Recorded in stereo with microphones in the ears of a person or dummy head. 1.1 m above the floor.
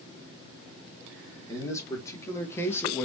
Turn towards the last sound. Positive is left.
turn(degrees=10)  # may be behind; listen again after turning